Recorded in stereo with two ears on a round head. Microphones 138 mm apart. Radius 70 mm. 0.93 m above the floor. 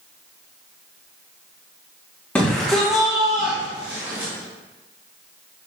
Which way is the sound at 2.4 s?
10° left (ahead or behind).